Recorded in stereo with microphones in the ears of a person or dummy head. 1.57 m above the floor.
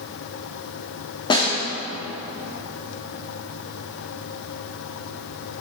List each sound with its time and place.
1.3 s a snare drum: 20° left (ahead or behind), 3 m